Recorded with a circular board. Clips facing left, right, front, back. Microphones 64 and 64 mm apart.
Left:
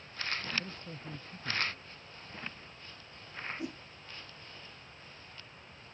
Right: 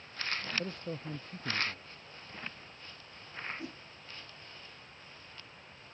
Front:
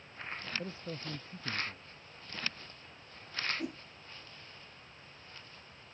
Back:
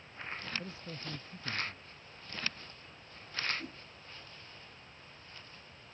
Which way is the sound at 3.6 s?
15° left.